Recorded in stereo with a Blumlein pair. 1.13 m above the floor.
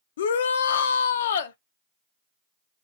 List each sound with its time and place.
0.2 s a shout: 60° left, 0.6 m